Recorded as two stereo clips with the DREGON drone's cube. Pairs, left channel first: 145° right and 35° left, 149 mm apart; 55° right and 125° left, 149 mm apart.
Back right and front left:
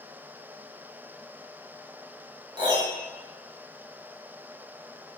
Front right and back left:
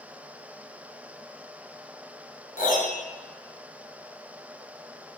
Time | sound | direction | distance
2.6 | a piano | 25° right | 1.0 m